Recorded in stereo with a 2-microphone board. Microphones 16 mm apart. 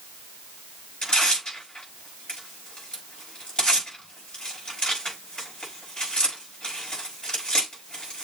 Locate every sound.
1.0 s tearing paper: 70° left (ahead or behind), 5 m